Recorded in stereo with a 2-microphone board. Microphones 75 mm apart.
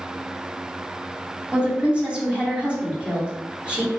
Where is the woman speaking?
15° right (ahead or behind), 2.5 m.